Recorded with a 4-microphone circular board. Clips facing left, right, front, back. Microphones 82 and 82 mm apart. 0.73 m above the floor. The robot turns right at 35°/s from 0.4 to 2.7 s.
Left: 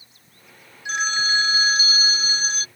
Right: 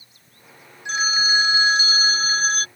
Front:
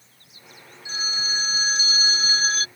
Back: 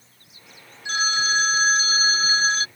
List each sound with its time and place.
0.8 s a phone ringing: 175° left; by 2.7 s 120° right